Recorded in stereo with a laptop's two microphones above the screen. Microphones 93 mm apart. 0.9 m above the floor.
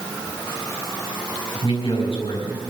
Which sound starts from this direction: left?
A man speaking, at 1.6 s.